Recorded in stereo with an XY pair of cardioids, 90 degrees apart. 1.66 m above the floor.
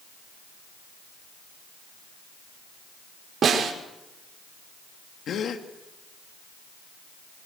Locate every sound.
3.4 s a snare drum: 55° right, 6 m
5.3 s a gasp: 65° left, 2.5 m